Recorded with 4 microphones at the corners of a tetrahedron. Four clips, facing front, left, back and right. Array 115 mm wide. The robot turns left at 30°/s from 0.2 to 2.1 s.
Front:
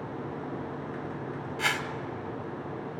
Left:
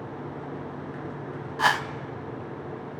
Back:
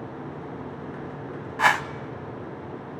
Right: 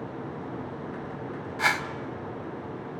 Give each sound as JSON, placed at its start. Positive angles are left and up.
{"t": 1.6, "sound": "a whoosh", "azimuth_deg": 155, "distance_m": 0.7}